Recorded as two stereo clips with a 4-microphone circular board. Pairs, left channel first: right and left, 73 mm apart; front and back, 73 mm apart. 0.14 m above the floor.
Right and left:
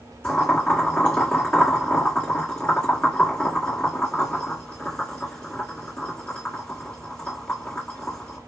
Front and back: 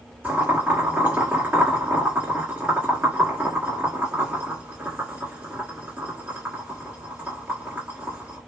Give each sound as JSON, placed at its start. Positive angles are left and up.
{"t": 0.2, "sound": "boiling", "azimuth_deg": -140, "distance_m": 2.0}